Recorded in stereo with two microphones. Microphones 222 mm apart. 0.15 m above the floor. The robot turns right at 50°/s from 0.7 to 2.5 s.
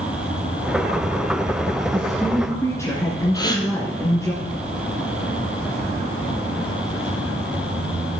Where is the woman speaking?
10° right (ahead or behind), 1.7 m; by 4.3 s 15° left (ahead or behind), 1.7 m.